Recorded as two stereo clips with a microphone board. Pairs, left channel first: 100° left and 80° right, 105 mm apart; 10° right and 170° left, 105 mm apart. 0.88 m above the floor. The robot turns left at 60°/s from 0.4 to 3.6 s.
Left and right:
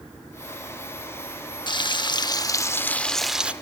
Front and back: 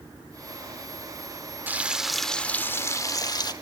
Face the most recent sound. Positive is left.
turn(degrees=-10)